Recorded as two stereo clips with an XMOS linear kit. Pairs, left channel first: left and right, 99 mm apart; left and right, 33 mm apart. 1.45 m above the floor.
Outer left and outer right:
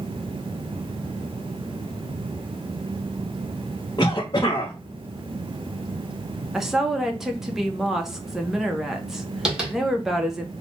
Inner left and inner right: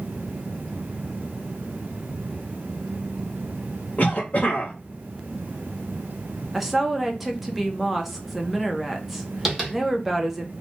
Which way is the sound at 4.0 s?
45° left (ahead or behind).